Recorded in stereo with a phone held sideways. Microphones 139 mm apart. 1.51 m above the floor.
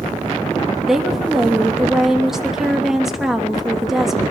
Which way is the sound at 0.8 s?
5° right (ahead or behind).